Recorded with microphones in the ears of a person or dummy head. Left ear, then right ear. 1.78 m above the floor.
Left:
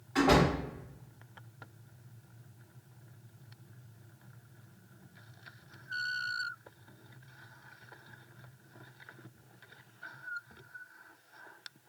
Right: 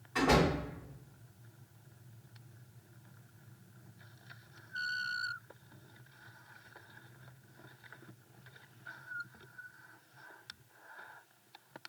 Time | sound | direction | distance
0.1 | a door slam | centre (ahead or behind) | 1.5 m